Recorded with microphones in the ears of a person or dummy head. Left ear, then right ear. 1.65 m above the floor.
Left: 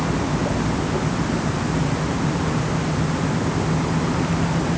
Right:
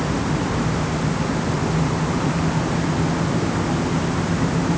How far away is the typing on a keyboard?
I don't hear typing on a keyboard.